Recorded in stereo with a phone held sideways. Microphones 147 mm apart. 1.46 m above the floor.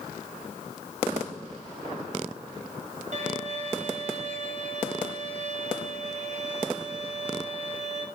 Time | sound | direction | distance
3.1 | a violin | 60° right (ahead or behind) | 4.5 m